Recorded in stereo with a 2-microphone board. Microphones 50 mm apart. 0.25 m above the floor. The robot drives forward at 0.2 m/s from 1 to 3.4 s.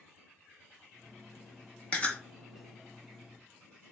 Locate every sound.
1.9 s chewing: 25° left (ahead or behind), 1.6 m